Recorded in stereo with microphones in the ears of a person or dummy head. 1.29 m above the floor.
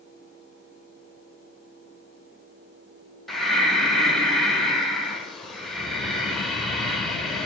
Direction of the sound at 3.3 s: Centre (ahead or behind).